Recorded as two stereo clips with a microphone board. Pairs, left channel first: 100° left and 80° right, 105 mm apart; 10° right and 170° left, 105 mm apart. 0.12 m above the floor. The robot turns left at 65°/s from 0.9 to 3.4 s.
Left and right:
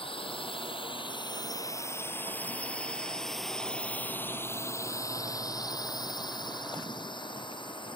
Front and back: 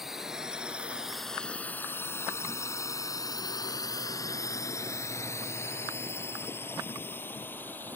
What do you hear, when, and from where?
0.0 s a drone: 85° left; by 8.0 s 60° left